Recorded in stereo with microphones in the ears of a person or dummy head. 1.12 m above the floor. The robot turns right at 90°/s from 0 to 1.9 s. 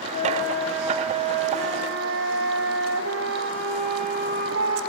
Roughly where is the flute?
Behind left.